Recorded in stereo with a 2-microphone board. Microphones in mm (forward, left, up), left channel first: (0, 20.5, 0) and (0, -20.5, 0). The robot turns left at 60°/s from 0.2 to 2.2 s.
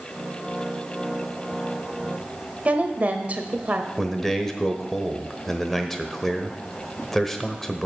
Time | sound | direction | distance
2.6 | a woman speaking | 40° right (ahead or behind) | 1.1 m
4.0 | a man speaking | 5° left (ahead or behind) | 1.0 m